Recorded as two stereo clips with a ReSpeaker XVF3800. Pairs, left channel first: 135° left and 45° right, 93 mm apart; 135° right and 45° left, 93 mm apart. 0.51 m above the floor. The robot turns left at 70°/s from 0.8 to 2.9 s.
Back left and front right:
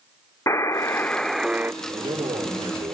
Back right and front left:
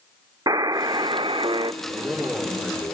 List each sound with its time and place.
0.5 s a buzzer: 80° left, 0.6 m; by 1.7 s 20° left, 0.6 m
1.8 s a man speaking: 5° right, 7.5 m; by 3.0 s 80° right, 7.5 m